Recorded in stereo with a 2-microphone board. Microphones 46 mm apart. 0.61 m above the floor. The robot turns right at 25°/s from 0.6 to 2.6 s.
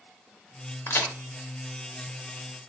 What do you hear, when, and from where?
0.9 s a crack: 60° left (ahead or behind), 0.8 m; by 1.1 s 65° left (ahead or behind), 0.8 m